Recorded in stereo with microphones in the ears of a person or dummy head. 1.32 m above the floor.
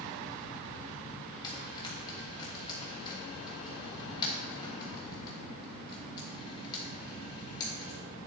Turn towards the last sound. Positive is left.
turn(degrees=30)  # may be behind; listen again after turning